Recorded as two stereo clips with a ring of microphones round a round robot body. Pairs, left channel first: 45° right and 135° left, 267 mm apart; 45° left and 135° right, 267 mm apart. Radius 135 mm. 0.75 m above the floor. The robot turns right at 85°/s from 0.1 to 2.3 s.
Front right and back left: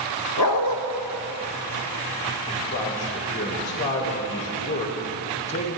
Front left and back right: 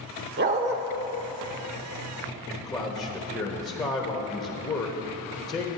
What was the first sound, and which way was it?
A dog barking, 85° right.